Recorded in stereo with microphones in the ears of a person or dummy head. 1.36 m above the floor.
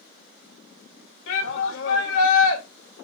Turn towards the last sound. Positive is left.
turn(degrees=75)  # may be behind; listen again after turning